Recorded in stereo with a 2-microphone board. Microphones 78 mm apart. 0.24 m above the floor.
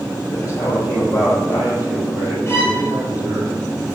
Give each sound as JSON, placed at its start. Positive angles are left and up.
{"t": 0.3, "sound": "a man speaking", "side_deg": 45, "distance_m": 6.0}
{"t": 2.5, "sound": "a violin", "side_deg": 35, "distance_m": 4.0}